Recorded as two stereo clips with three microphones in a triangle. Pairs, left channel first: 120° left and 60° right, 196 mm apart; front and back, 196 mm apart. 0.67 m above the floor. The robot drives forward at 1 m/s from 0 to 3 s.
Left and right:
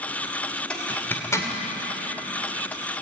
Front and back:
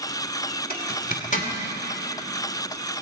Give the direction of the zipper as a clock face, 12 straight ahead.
11 o'clock.